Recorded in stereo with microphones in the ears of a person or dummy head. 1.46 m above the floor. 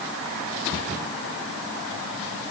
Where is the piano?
I don't hear a piano.